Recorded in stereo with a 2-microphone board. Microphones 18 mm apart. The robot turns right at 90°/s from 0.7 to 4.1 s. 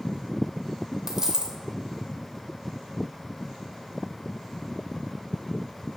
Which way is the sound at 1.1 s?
140° right.